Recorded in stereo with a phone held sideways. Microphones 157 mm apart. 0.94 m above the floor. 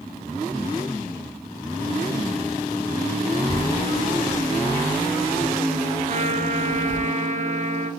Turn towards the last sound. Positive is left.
turn(degrees=-50)  # may be behind; listen again after turning